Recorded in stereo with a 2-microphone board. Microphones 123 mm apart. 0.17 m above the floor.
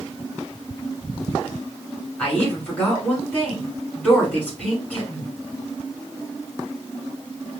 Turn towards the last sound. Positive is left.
turn(degrees=10)  # may be behind; listen again after turning